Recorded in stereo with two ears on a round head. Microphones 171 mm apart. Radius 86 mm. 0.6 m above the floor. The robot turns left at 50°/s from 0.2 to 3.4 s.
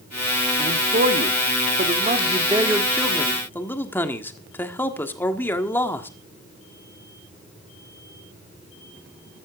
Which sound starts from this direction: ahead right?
A man speaking, at 0.6 s.